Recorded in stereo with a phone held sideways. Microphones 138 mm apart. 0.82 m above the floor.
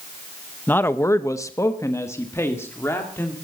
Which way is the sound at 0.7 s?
15° left (ahead or behind).